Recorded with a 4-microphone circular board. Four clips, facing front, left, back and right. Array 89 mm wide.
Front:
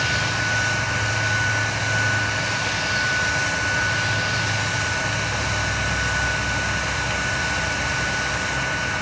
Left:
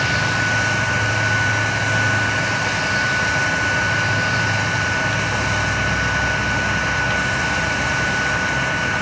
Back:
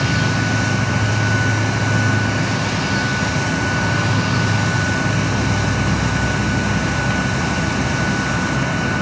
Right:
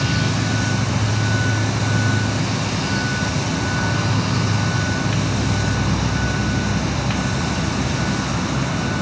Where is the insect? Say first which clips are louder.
Left 2 dB, back 4 dB; 145° right.